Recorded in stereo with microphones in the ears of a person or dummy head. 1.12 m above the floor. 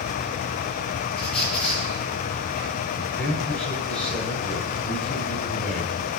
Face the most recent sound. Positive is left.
turn(degrees=5)  # may be behind; listen again after turning